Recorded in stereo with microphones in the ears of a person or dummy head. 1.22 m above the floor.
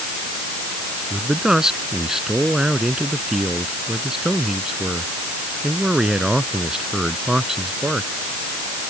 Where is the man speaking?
5° right (ahead or behind).